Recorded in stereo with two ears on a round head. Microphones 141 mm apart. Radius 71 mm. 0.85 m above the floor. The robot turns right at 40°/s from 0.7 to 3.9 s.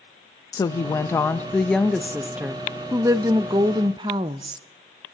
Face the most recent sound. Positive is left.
turn(degrees=-30)  # may be behind; listen again after turning